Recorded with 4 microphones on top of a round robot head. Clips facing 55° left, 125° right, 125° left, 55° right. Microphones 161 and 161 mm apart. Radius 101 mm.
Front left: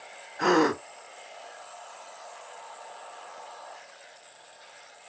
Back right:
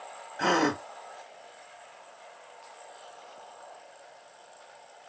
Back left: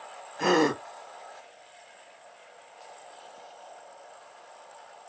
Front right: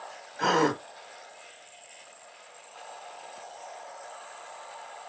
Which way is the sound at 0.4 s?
175° right.